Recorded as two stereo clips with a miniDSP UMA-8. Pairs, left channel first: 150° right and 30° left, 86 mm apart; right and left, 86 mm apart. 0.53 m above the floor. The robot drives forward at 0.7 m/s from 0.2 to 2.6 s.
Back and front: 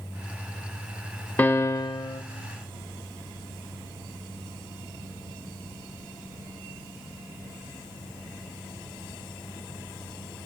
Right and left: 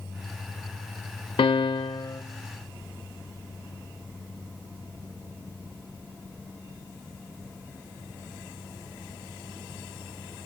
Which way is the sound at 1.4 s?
80° right.